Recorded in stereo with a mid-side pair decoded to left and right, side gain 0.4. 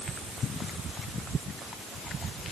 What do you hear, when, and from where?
Only background noise.